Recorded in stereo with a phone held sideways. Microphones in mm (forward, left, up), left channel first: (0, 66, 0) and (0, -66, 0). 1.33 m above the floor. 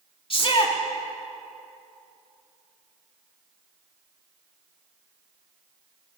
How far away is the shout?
About 2 m.